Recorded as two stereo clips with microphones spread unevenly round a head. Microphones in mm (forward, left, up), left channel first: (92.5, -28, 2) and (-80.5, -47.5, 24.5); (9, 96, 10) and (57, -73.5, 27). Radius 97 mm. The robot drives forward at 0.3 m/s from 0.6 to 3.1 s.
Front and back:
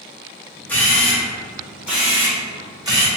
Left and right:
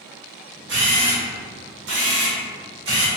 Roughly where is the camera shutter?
Right.